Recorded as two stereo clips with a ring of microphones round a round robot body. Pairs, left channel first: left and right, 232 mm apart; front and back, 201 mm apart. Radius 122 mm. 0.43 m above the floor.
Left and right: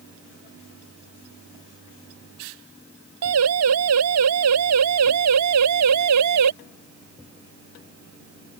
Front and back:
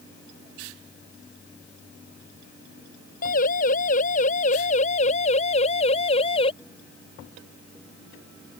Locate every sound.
3.2 s a siren: 60° right; by 6.5 s 70° right